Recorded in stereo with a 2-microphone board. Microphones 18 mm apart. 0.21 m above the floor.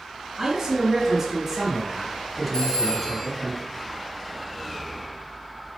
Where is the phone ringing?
45° left (ahead or behind), 2.5 m.